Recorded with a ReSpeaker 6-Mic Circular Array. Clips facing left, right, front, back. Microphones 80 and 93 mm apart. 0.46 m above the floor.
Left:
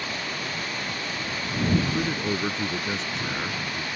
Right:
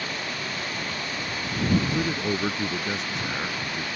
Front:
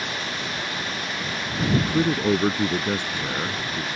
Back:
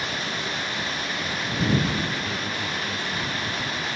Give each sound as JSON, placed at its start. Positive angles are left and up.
{"t": 1.7, "sound": "a man speaking", "azimuth_deg": -5}